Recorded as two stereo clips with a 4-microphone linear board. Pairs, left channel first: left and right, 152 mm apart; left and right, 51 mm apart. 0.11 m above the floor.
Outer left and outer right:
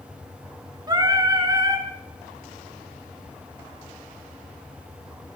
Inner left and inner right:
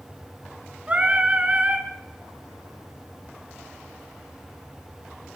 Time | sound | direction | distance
0.9 | singing | 25° right (ahead or behind) | 0.7 m